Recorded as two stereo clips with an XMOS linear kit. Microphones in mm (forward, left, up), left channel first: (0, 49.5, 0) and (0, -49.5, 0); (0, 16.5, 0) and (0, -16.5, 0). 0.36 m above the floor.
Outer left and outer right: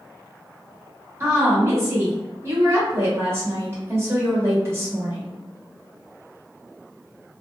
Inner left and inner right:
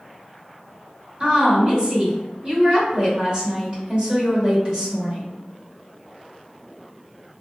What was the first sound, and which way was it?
A woman speaking, 30° right (ahead or behind).